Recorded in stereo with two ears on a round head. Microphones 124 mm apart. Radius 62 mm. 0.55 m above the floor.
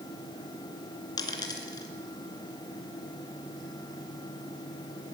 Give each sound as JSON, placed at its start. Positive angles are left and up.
{"t": 1.2, "sound": "a dropped coin", "side_deg": 30, "distance_m": 3.0}